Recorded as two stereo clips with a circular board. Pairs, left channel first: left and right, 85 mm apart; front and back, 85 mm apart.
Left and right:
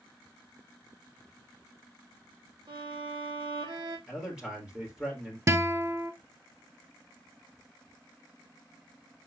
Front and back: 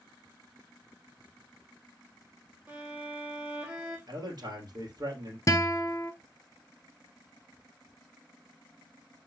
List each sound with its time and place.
2.7 s a violin: 110° right, 4 m
4.1 s a man speaking: 170° right, 3 m
5.5 s a guitar: 45° right, 0.7 m